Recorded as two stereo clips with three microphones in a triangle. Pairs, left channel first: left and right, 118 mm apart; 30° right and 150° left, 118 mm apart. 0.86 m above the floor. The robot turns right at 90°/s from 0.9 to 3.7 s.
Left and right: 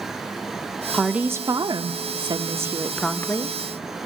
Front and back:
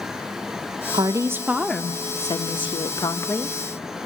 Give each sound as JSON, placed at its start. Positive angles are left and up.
{"t": 0.9, "sound": "a woman speaking", "azimuth_deg": 180, "distance_m": 0.6}